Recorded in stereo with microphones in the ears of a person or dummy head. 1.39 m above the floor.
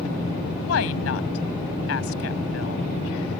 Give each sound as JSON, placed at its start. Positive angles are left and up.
{"t": 0.6, "sound": "a woman speaking", "side_deg": 85}